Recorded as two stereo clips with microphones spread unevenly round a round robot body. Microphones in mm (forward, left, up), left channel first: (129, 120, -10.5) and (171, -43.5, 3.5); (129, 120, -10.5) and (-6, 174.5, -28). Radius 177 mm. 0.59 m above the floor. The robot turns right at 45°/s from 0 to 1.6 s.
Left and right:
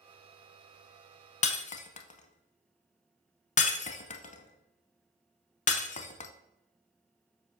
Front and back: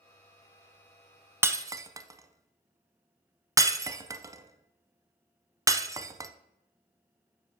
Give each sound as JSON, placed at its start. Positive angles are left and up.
{"t": 1.4, "sound": "breaking glass", "azimuth_deg": 80, "distance_m": 0.5}